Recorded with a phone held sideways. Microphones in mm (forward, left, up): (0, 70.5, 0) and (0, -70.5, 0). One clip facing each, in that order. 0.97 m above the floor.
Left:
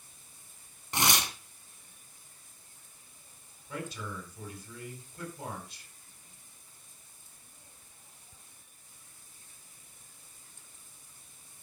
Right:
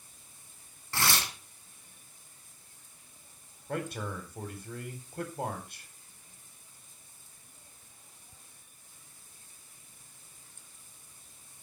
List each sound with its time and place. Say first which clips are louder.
0.9 s tearing paper: left 2 dB; 20° left (ahead or behind), 2.5 m
3.7 s a man speaking: right 4 dB; 55° right (ahead or behind), 4 m